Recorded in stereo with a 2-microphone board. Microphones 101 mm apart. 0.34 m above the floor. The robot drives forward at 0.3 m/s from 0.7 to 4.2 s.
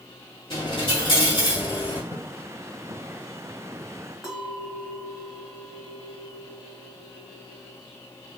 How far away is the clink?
About 2.5 m.